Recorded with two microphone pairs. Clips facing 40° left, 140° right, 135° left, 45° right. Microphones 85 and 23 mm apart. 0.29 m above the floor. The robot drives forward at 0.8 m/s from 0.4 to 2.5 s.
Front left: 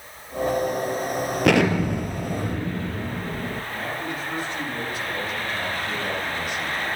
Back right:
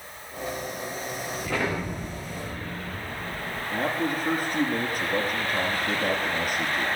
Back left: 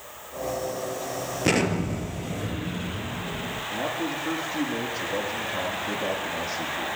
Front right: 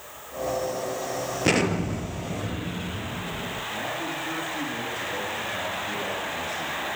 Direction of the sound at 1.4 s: 40° left.